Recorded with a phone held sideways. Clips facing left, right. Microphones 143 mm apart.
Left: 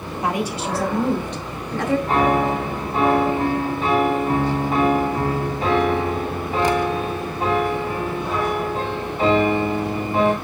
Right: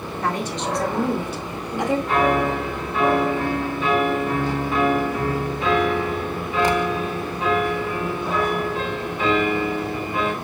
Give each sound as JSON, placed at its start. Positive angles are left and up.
{"t": 0.2, "sound": "a woman speaking", "side_deg": 15, "distance_m": 1.8}
{"t": 2.1, "sound": "a piano", "side_deg": 35, "distance_m": 2.0}